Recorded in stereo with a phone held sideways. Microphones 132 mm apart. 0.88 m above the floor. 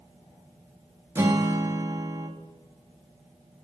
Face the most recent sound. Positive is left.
turn(degrees=-15)  # may be behind; listen again after turning